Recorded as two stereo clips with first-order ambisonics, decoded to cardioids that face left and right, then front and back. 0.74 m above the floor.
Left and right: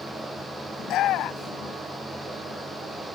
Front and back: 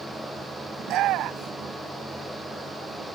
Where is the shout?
135° left.